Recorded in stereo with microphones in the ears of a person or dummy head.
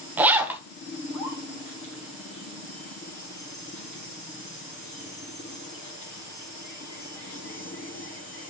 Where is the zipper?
15° right (ahead or behind), 0.8 m.